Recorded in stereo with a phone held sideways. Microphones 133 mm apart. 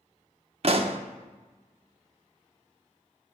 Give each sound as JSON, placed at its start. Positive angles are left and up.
{"t": 0.6, "sound": "a pop", "side_deg": -50, "distance_m": 0.6}